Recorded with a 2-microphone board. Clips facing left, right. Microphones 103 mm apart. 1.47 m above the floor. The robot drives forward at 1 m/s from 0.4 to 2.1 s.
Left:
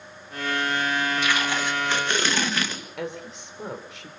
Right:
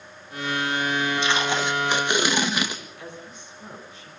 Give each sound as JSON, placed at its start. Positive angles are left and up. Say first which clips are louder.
{"t": 1.2, "sound": "tape being pulled", "louder": "right 2 dB", "side_deg": -25, "distance_m": 1.5}
{"t": 3.0, "sound": "a woman speaking", "louder": "left 7 dB", "side_deg": 85, "distance_m": 4.0}